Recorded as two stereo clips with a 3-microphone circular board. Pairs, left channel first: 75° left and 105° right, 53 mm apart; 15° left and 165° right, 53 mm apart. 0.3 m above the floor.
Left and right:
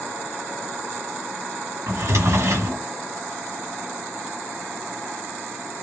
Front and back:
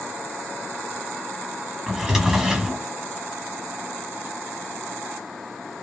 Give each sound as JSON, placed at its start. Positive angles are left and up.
{"t": 1.9, "sound": "a drawer", "azimuth_deg": -80, "distance_m": 1.3}